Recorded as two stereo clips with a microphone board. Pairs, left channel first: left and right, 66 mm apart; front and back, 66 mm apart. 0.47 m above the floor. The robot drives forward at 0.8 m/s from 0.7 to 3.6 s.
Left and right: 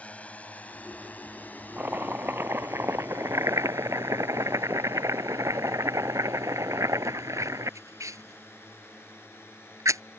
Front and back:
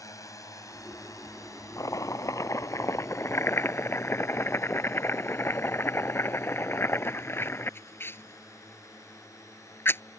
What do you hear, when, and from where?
0.0 s a drone: 20° left; by 10.2 s 35° left
1.8 s chopping: 30° right; by 10.0 s 50° right